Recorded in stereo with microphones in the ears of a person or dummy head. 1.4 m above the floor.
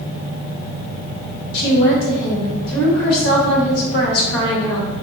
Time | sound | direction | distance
1.5 | a woman speaking | 60° left (ahead or behind) | 1.1 m